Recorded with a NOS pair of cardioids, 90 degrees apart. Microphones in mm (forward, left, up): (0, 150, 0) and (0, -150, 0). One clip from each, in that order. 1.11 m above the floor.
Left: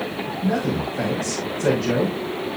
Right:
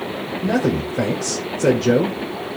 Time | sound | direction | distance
0.4 | a man speaking | 60° right | 3.5 m